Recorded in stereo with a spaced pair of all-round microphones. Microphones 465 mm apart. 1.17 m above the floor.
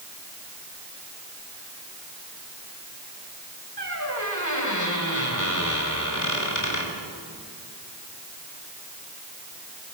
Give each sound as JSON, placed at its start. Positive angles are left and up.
{"t": 3.8, "sound": "a squeak", "side_deg": 40, "distance_m": 4.0}